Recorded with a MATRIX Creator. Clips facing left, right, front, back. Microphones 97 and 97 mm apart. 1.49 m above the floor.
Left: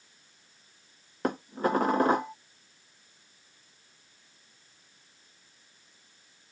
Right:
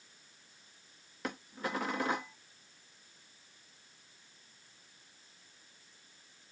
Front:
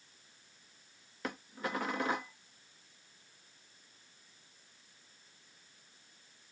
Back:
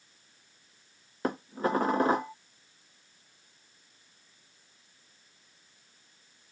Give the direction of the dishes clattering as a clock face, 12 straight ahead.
8 o'clock.